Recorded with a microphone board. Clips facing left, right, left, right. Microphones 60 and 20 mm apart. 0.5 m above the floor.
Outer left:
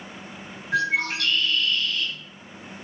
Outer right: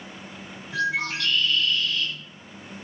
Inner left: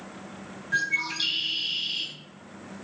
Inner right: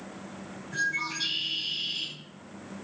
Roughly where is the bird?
Left.